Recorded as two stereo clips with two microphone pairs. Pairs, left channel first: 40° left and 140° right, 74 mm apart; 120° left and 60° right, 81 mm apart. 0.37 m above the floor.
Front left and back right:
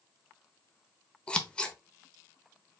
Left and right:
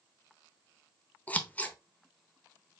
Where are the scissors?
95° left, 0.9 m.